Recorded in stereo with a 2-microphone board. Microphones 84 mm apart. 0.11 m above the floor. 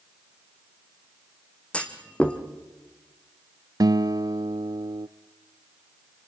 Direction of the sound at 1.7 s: 15° left (ahead or behind).